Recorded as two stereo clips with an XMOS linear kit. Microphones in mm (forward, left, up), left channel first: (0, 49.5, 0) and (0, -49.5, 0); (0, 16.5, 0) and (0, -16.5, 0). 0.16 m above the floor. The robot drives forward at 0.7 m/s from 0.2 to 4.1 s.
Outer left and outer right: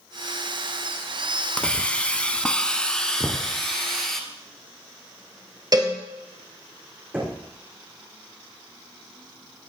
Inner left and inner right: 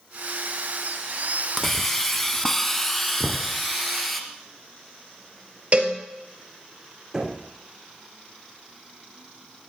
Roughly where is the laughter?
No laughter in this recording.